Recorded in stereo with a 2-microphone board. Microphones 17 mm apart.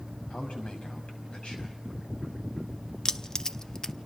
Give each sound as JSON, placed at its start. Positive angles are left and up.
{"t": 0.3, "sound": "a man speaking", "side_deg": 75, "distance_m": 5.5}
{"t": 3.0, "sound": "keys jangling", "side_deg": 30, "distance_m": 0.6}